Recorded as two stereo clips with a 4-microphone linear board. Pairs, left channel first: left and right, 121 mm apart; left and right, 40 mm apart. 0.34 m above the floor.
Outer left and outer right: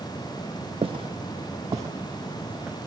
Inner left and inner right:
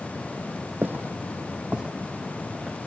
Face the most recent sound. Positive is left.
turn(degrees=-10)  # may be behind; listen again after turning